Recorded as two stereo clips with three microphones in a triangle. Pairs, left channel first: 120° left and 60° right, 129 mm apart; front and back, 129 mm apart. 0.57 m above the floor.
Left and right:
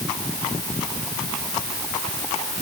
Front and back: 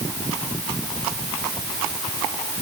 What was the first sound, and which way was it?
Only background noise.